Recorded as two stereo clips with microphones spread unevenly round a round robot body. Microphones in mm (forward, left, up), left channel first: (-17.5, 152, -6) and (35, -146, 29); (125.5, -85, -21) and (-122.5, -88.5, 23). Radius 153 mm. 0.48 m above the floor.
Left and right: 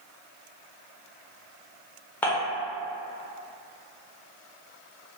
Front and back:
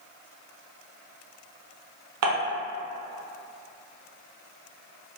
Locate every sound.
2.2 s dishes clattering: straight behind, 0.8 m